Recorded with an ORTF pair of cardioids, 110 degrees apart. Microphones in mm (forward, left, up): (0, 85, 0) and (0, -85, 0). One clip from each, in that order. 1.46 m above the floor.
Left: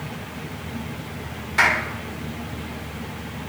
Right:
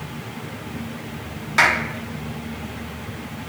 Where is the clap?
40° right, 2.5 m.